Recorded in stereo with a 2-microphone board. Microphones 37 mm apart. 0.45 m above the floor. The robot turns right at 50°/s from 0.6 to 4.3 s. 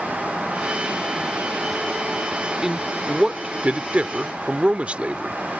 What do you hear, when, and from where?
2.6 s a man speaking: 160° right; by 5.4 s 75° right